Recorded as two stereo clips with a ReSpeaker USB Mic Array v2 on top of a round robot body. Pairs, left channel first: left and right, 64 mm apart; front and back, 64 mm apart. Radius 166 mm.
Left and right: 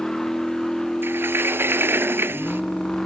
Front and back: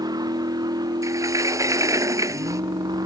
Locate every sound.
0.0 s a vehicle: 175° left
1.0 s a sliding door: 145° right